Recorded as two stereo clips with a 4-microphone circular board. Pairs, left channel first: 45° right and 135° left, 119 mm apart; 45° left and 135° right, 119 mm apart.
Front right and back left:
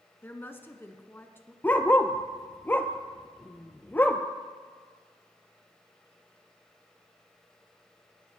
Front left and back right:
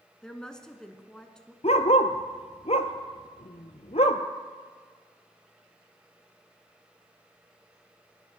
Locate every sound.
0.2 s a woman speaking: 25° right, 1.0 m
1.6 s a dog barking: 30° left, 0.9 m